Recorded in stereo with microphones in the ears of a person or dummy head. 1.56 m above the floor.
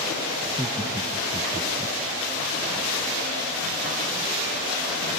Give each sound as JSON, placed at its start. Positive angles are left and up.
{"t": 0.4, "sound": "laughter", "side_deg": -10, "distance_m": 0.5}